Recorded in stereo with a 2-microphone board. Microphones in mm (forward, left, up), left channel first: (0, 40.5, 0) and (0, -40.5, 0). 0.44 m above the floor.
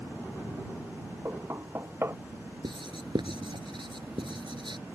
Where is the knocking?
30° right (ahead or behind).